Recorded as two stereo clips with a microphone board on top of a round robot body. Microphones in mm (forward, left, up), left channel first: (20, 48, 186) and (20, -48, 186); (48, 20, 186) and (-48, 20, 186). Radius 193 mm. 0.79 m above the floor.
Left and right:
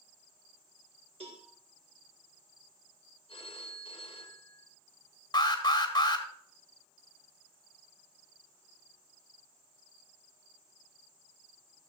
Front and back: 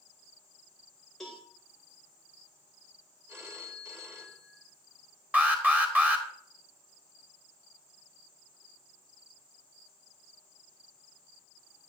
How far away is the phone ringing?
About 1.4 m.